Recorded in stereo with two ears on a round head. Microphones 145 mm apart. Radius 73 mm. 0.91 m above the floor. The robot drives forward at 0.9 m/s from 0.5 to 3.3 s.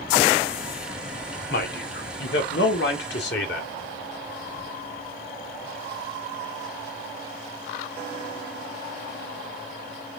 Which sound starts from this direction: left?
A man speaking, at 1.5 s.